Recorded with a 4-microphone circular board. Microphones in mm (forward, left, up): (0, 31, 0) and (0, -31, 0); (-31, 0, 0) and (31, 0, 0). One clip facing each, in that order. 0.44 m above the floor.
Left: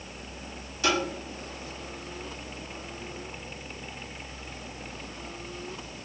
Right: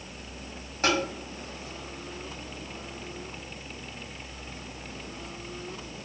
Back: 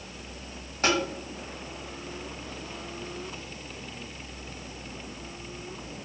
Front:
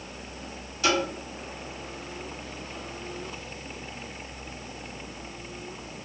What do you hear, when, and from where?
0.8 s tapping: 135° right, 1.2 m